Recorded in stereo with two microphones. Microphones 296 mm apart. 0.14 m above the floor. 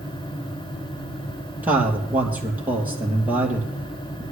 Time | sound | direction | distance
1.6 | a man speaking | 5° right (ahead or behind) | 3 m